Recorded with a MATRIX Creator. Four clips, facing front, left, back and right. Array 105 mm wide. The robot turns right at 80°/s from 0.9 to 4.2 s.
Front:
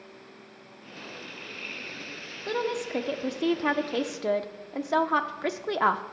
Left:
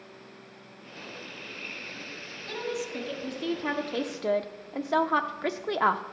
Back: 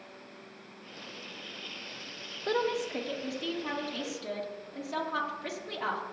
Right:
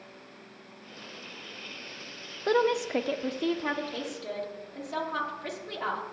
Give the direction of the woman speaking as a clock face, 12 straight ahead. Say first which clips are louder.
Right 9 dB, front 1 dB; 3 o'clock.